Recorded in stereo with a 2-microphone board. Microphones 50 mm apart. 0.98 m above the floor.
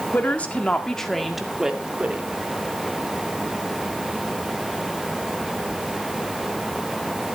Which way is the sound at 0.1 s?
35° left (ahead or behind).